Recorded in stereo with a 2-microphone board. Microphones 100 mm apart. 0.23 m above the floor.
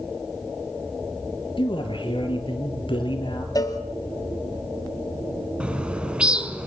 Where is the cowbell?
40° left (ahead or behind), 1.7 m.